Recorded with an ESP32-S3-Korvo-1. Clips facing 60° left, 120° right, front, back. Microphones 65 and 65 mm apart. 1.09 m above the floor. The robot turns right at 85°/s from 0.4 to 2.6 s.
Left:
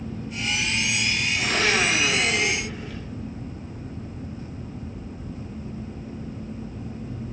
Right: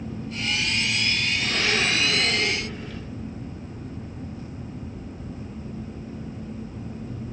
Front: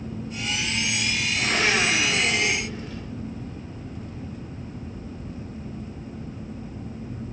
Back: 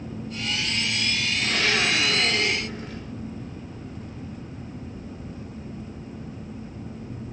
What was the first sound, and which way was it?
A blender, 40° left.